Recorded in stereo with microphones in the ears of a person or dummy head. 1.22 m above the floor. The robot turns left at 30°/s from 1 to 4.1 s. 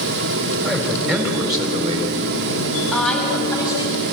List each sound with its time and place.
0.6 s a man speaking: 5° right, 4.5 m; by 2.2 s 40° right, 4.5 m
2.9 s a woman speaking: 175° right, 6 m; by 4.0 s 150° left, 6 m